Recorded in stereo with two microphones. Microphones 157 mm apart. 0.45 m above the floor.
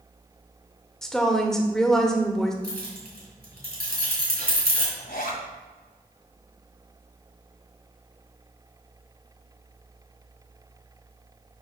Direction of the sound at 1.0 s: 5° left (ahead or behind).